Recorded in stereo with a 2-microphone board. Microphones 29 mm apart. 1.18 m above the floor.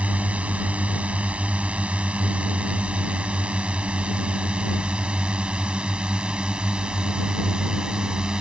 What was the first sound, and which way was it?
A drone, 45° right (ahead or behind).